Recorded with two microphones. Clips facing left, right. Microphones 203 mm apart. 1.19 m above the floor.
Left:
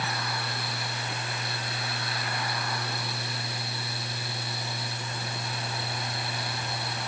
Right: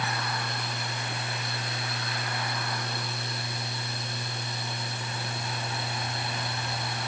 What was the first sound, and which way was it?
Only background noise.